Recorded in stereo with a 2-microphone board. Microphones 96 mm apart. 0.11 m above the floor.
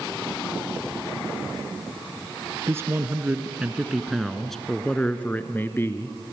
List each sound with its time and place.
2.7 s a man speaking: 30° right (ahead or behind), 1.5 m; by 6.3 s 30° left (ahead or behind), 1.8 m